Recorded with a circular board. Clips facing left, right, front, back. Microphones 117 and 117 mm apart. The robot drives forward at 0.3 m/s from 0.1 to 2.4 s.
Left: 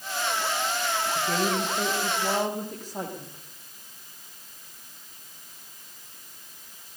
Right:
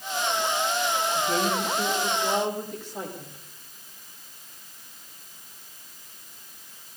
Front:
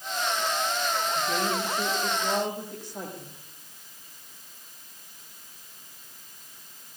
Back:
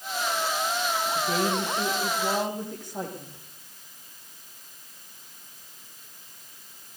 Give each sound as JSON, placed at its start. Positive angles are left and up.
{"t": 1.1, "sound": "a woman speaking", "azimuth_deg": 140, "distance_m": 9.5}